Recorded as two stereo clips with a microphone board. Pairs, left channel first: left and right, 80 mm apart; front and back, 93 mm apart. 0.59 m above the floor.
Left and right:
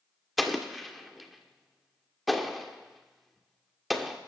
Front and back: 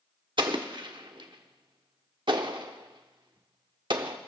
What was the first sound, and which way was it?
An explosion, straight behind.